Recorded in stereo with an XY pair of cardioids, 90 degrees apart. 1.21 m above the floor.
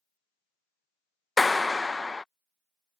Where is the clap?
25° left.